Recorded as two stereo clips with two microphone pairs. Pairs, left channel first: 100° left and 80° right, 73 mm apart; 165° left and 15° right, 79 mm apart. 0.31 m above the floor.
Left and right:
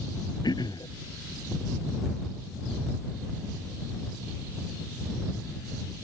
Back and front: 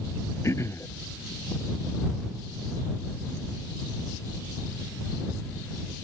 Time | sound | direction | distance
0.4 | throat clearing | 115° left | ?